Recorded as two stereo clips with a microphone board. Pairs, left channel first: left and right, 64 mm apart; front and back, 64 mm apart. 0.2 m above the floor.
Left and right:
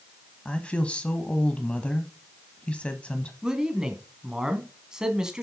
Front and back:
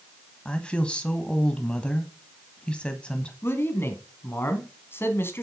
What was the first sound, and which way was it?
A woman speaking, 45° left.